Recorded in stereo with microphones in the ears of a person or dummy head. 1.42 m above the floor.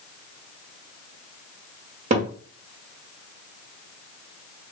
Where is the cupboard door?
40° right (ahead or behind), 1.1 m.